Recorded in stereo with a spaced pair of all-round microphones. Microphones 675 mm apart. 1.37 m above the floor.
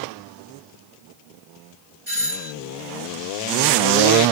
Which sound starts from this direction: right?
A doorbell, at 2.1 s.